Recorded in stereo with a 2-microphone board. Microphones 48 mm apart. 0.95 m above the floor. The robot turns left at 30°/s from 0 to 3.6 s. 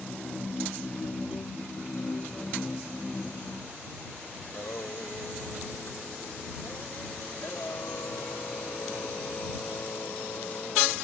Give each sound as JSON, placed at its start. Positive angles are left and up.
{"t": 4.4, "sound": "singing", "side_deg": 85}